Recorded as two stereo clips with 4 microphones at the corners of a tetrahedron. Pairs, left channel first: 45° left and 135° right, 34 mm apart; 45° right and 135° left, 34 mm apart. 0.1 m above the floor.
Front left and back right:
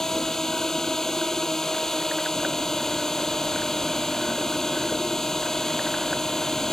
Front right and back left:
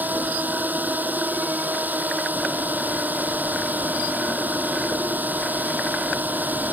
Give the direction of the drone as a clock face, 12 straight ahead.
8 o'clock.